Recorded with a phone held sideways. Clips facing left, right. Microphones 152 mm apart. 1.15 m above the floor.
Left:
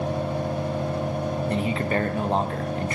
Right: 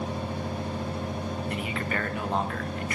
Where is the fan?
70° left (ahead or behind), 2 m.